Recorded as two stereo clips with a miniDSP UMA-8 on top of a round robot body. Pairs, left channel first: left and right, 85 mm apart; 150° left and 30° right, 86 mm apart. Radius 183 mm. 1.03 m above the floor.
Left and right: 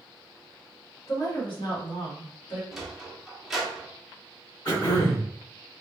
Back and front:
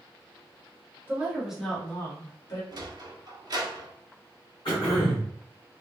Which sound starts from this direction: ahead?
A sliding door, at 2.7 s.